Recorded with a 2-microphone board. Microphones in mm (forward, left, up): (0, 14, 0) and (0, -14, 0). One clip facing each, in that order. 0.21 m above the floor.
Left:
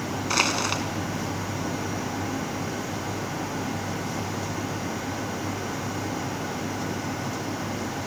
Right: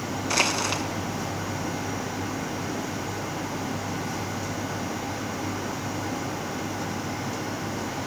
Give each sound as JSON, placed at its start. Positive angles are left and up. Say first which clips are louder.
{"t": 0.3, "sound": "crushing", "louder": "even", "side_deg": 10, "distance_m": 1.5}